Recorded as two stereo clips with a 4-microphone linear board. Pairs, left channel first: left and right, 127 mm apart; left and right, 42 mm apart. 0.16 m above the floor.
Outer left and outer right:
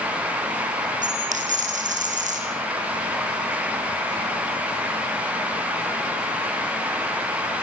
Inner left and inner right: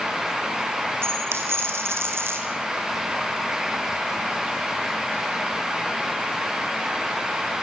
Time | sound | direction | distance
1.0 | a dropped coin | 75° right (ahead or behind) | 4.5 m